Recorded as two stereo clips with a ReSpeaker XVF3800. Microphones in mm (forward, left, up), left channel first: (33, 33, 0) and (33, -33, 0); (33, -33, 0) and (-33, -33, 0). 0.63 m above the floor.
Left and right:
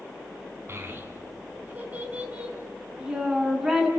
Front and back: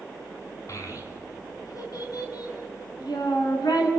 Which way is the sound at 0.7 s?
40° right.